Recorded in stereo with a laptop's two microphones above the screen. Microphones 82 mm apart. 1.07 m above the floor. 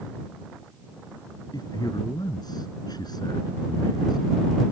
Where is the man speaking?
55° left (ahead or behind).